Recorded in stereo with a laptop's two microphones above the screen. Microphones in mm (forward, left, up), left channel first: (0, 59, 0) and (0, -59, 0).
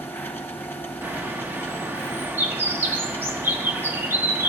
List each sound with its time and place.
0.0 s a machine running: 20° left (ahead or behind), 1.3 m
1.0 s a bird: 20° right (ahead or behind), 0.8 m